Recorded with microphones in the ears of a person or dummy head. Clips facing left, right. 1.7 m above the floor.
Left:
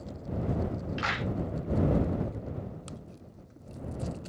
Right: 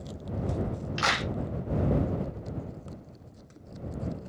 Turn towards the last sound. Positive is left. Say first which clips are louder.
# right 5 dB
turn(degrees=-60)  # may be behind; listen again after turning